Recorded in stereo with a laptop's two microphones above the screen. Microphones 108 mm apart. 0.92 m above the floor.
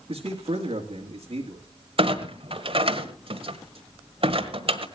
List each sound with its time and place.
0.1 s a man speaking: 55° right (ahead or behind), 2.5 m
2.0 s a clunk: 60° right (ahead or behind), 1.4 m